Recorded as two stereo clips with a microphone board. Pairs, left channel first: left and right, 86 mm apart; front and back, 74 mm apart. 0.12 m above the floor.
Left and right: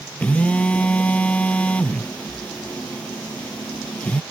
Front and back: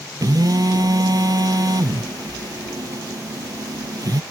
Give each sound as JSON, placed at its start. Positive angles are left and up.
{"t": 0.2, "sound": "a phone buzzing", "azimuth_deg": 165}